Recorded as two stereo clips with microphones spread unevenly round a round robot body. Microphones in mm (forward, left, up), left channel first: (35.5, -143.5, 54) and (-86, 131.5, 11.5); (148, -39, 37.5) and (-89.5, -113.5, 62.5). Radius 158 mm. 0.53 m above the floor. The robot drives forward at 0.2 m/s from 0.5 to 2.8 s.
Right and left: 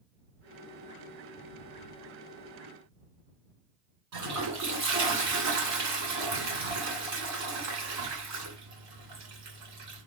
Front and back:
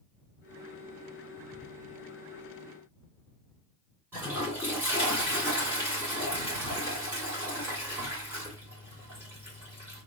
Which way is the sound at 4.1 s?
115° left.